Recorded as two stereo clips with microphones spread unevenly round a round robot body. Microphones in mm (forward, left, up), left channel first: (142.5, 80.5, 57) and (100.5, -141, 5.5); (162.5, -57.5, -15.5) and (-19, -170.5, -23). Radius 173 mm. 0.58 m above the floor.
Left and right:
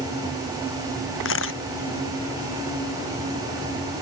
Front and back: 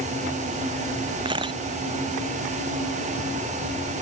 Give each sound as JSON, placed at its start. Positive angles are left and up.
{"t": 1.2, "sound": "a camera shutter", "azimuth_deg": 135}